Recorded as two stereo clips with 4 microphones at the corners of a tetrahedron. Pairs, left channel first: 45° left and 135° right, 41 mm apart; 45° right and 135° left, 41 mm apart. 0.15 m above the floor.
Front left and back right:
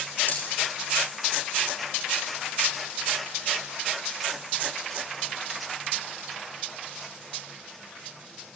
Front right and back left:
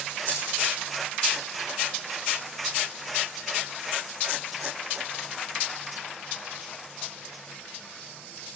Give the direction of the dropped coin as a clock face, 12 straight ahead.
12 o'clock.